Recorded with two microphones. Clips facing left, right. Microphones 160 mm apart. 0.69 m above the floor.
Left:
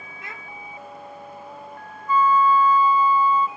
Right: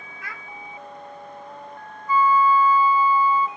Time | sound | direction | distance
0.2 | a child speaking | 25° left (ahead or behind) | 1.1 m
2.1 | a flute | 10° right (ahead or behind) | 0.5 m